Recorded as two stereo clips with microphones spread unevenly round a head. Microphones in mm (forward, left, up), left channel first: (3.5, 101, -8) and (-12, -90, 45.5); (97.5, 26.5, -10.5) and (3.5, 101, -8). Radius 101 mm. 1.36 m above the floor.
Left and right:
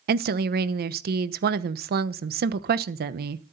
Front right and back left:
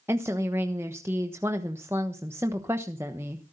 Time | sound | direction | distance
0.1 | a woman speaking | 140° right | 1.0 m